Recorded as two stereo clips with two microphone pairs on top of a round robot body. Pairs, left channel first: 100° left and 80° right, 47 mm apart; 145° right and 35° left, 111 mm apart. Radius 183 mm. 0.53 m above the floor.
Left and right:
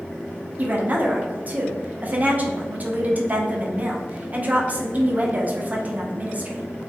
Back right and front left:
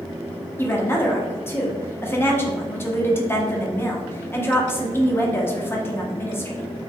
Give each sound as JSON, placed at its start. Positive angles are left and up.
{"t": 0.6, "sound": "a woman speaking", "azimuth_deg": -75, "distance_m": 1.0}